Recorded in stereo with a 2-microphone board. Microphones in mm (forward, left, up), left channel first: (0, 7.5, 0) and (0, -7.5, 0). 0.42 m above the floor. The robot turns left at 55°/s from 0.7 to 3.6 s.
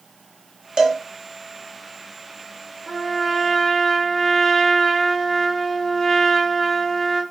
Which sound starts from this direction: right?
A cowbell, at 0.8 s.